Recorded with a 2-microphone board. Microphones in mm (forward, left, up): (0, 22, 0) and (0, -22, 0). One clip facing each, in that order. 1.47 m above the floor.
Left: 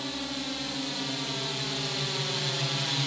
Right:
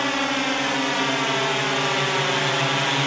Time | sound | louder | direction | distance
0.0 | a drone | right 12 dB | 75° right (ahead or behind) | ?